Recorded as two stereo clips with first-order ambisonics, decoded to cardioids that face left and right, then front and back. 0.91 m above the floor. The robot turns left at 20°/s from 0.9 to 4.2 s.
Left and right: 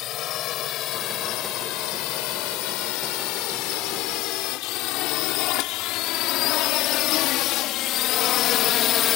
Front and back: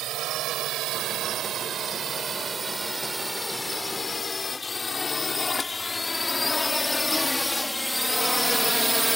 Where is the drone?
135° left; by 9.2 s 90° left.